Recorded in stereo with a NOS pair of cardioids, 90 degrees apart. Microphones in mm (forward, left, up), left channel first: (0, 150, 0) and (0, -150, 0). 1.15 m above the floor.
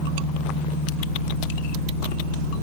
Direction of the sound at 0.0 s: 70° right.